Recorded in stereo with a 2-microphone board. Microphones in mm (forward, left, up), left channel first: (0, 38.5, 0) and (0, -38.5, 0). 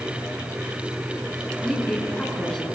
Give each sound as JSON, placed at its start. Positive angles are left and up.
{"t": 1.6, "sound": "a woman speaking", "side_deg": 5, "distance_m": 5.0}